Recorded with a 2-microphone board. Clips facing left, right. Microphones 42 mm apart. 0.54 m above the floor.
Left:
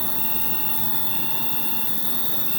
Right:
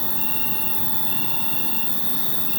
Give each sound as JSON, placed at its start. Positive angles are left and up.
{"t": 0.0, "sound": "an insect", "side_deg": -5, "distance_m": 0.8}